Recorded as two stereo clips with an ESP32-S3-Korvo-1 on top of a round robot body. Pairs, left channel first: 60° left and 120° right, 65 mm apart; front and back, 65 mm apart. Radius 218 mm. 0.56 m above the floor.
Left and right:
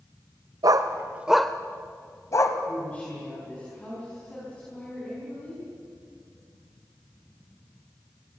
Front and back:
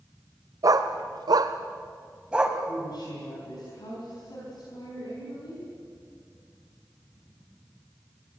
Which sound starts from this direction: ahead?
A woman speaking, at 2.7 s.